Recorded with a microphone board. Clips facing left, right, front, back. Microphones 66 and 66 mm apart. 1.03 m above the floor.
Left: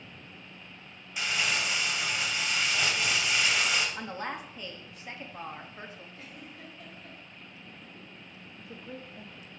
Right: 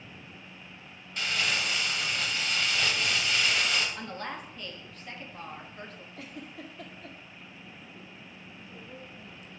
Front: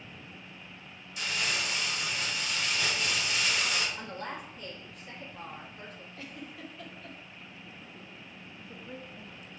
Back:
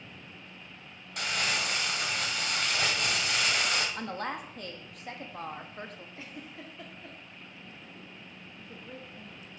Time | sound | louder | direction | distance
1.2 | crumpling | even, back 2 dB | 165° left | 1.6 m
4.0 | a woman speaking | left 1 dB, back 4 dB | 165° left | 1.4 m
6.2 | a giggle | right 4 dB, front 3 dB | 110° right | 1.7 m
8.6 | a woman speaking | left 4 dB, front 1 dB | 90° left | 1.4 m